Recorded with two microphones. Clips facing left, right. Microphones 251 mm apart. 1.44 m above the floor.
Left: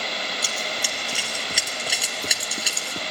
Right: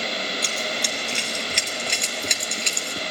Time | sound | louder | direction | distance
0.4 | running footsteps | right 3 dB | 5° left (ahead or behind) | 2 m